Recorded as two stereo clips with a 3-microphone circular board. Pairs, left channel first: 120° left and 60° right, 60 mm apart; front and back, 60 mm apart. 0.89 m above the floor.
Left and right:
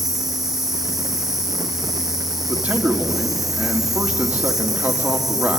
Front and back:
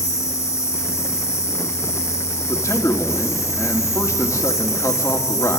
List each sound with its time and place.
0.0 s an insect: 25° left, 3.5 m
2.5 s a man speaking: 10° left, 2.5 m